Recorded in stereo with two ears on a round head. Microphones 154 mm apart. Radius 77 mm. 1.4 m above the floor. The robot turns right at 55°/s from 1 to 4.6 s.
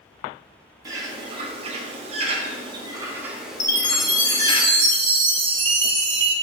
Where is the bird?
145° right, 0.7 m; by 4.6 s 55° left, 0.7 m.